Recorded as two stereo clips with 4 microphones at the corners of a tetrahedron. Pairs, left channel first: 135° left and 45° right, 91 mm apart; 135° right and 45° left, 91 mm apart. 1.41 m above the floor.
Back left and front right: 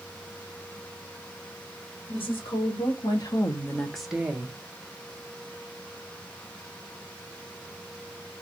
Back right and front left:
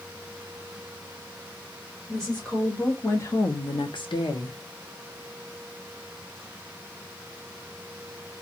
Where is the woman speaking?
140° left, 1.4 m; by 4.6 s 105° right, 0.8 m.